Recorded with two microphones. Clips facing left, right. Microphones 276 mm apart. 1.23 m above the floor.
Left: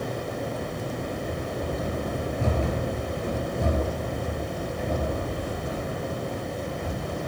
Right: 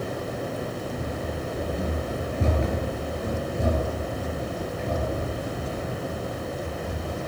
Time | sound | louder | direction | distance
1.0 | running footsteps | even | 45° right (ahead or behind) | 1.6 m